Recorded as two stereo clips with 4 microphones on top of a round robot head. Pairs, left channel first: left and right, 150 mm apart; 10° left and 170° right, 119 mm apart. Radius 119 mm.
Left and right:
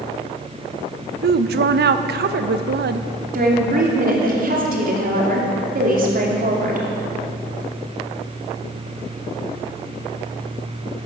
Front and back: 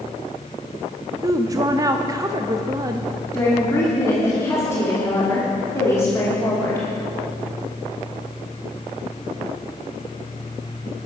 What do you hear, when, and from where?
1.2 s a woman speaking: 105° right, 0.6 m
3.3 s a woman speaking: 65° right, 3 m